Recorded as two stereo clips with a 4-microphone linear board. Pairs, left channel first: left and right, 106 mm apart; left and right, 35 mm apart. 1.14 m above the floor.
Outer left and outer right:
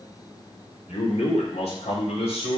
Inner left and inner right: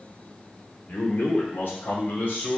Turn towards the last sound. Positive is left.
turn(degrees=75)  # may be behind; listen again after turning